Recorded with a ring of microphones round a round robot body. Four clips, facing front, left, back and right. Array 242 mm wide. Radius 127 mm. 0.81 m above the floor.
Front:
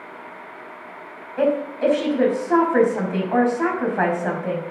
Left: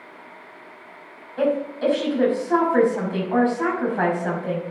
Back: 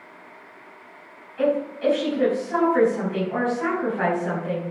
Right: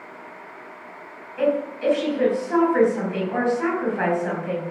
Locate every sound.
1.4 s a woman speaking: 20° left, 5.5 m